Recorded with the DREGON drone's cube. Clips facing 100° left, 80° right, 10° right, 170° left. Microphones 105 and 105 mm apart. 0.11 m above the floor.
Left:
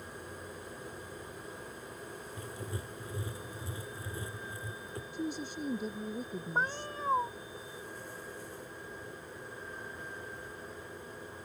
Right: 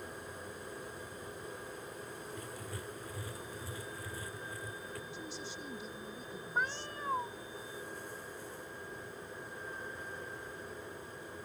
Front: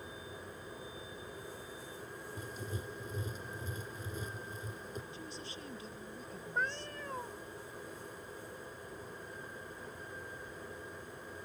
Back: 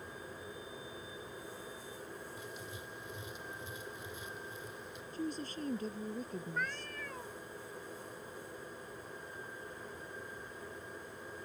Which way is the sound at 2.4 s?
35° left.